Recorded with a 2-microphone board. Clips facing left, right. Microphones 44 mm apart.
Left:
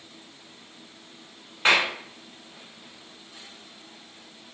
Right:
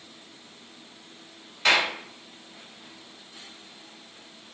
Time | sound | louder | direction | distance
1.6 | a clap | left 1 dB | 30° left (ahead or behind) | 1.1 m